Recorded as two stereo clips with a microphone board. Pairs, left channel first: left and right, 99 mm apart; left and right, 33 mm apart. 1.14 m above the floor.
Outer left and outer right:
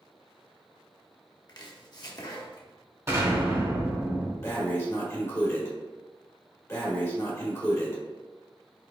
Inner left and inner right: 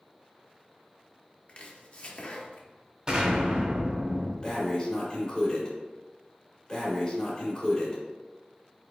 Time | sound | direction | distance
1.5 | chopping | 45° left (ahead or behind) | 0.8 m
3.1 | an explosion | 30° right (ahead or behind) | 1.4 m
4.4 | breathing | 30° left (ahead or behind) | 1.3 m